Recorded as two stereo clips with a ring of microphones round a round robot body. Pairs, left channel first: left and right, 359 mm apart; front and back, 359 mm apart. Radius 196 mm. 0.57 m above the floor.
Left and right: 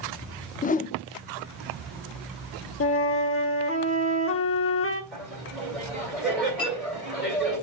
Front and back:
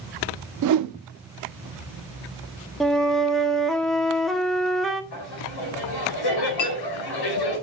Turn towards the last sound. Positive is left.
turn(degrees=15)